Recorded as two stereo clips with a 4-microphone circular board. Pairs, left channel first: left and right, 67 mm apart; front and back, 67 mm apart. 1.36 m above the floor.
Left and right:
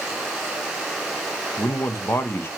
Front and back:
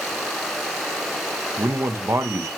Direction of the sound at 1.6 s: 140° left.